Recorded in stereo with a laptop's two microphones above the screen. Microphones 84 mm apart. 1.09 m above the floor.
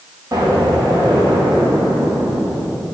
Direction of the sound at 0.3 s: 40° right (ahead or behind).